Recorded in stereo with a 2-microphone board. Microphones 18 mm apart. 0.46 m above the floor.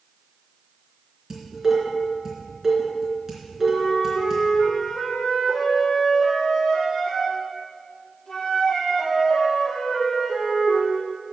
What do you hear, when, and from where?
1.3 s dishes clattering: 15° right (ahead or behind), 3.5 m
3.6 s a flute: 30° left (ahead or behind), 5 m